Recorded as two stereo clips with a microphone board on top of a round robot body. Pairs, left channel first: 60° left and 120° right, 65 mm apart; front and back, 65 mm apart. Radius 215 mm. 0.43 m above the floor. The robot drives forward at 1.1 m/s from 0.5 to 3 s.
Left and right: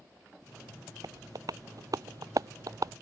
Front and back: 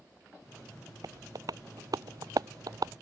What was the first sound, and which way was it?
Tapping, 150° right.